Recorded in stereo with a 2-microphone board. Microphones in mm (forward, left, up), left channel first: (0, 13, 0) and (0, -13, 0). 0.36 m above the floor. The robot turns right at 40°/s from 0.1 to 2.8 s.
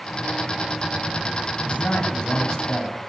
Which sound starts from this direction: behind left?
A man speaking, at 1.6 s.